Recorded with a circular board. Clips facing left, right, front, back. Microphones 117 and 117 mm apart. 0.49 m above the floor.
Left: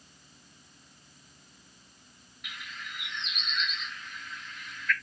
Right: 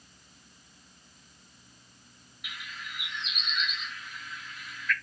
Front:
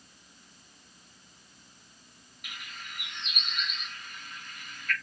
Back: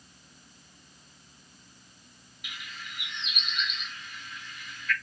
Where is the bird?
5° right, 0.7 m.